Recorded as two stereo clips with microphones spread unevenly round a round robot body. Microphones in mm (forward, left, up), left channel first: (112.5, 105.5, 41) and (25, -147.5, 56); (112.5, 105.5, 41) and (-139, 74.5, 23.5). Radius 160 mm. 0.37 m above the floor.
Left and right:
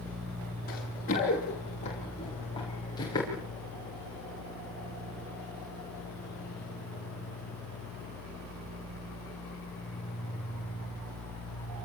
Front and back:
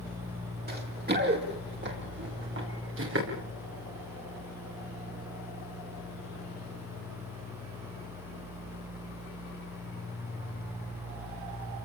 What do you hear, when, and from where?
0.7 s running footsteps: 135° left, 9.5 m; by 3.3 s 150° left, 10.5 m